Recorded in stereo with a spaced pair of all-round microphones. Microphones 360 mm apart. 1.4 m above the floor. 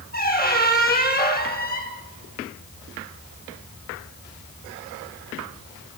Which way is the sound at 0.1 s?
25° left (ahead or behind).